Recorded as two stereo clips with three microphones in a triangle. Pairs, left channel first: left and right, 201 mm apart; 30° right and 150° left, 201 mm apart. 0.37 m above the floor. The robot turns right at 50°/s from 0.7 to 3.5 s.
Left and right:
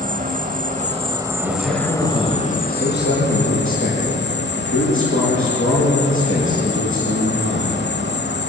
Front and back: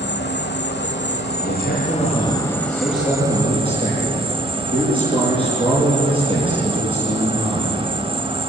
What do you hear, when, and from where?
0.0 s an insect: 45° right, 1.0 m; by 8.5 s 95° left, 1.0 m
1.4 s a man speaking: 20° right, 7 m; by 7.9 s 85° left, 7 m